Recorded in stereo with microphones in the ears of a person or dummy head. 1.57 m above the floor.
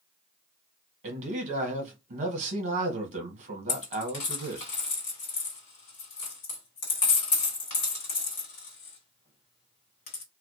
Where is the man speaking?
45° right (ahead or behind), 1.0 m.